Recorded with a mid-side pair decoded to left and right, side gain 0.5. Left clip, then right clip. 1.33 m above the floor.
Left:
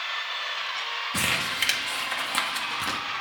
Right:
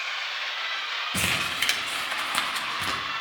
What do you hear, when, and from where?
1.1 s crumpling: straight ahead, 1.0 m